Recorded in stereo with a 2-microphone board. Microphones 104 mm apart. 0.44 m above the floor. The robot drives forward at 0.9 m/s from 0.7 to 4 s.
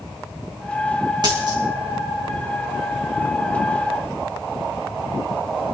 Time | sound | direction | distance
1.2 | a dropped coin | 45° right (ahead or behind) | 2.5 m